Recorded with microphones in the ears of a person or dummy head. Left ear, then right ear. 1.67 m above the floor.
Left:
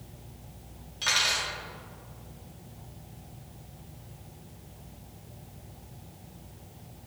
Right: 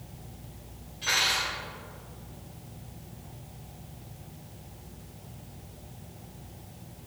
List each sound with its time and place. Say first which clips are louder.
1.0 s cutlery clinking: even; 60° left (ahead or behind), 2.5 m